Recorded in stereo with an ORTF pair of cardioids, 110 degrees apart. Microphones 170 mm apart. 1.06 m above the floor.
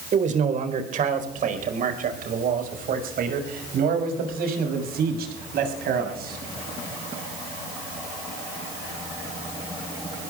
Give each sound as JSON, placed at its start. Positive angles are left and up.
{"t": 0.1, "sound": "a man speaking", "azimuth_deg": -45, "distance_m": 4.0}